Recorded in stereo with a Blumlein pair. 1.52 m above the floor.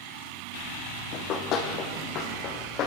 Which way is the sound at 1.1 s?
35° left.